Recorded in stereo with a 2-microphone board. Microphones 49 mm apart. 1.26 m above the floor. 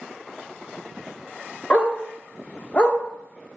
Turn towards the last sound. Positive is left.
turn(degrees=30)  # may be behind; listen again after turning